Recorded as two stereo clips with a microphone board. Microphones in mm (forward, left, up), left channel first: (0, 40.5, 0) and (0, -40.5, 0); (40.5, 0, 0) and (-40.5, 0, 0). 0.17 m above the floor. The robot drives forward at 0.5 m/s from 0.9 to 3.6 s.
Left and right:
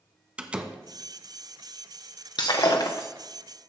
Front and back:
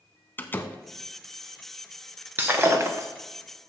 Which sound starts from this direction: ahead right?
A door slam, at 0.4 s.